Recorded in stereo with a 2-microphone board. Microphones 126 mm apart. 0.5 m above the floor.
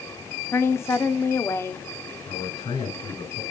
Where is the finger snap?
I don't hear a finger snap.